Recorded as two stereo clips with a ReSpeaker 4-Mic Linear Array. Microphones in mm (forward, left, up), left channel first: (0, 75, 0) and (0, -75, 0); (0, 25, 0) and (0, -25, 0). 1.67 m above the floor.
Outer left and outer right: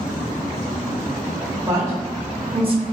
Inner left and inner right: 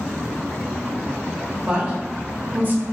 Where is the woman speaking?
20° right (ahead or behind), 1.1 m; by 2.8 s 45° right (ahead or behind), 0.6 m.